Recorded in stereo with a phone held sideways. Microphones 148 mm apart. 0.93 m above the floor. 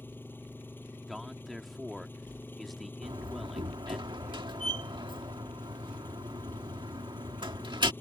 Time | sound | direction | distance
0.0 | an engine running | 15° left (ahead or behind) | ?
1.1 | a man speaking | centre (ahead or behind) | ?
3.0 | a door slam | 30° right (ahead or behind) | ?